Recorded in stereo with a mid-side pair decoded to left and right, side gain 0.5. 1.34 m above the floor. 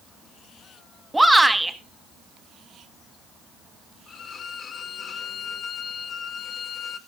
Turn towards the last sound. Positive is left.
turn(degrees=55)